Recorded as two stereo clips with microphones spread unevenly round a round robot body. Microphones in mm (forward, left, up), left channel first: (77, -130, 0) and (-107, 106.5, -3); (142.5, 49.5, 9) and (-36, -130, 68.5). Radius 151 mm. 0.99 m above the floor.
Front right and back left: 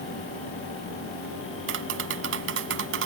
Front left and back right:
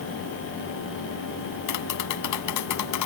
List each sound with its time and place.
1.7 s tapping: 75° left